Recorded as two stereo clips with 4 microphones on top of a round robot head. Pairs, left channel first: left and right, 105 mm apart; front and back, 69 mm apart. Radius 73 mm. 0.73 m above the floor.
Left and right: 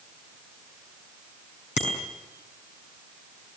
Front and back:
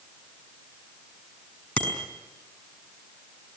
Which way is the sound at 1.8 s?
70° left.